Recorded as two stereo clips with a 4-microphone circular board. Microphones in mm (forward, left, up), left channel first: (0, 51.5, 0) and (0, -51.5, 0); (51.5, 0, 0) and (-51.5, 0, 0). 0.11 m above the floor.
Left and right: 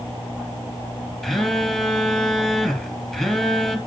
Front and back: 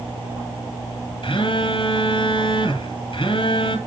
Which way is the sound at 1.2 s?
5° left.